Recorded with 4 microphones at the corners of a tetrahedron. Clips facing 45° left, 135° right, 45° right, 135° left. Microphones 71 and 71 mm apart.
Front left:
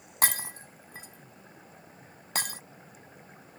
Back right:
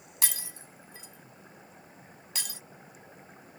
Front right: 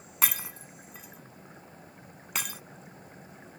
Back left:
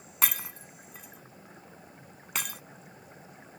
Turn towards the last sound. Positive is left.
turn(degrees=40)